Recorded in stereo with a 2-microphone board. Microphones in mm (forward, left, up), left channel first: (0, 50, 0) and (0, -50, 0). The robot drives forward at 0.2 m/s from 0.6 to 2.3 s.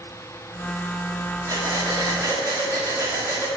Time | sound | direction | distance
1.5 | breathing | 35° right (ahead or behind) | 1.5 m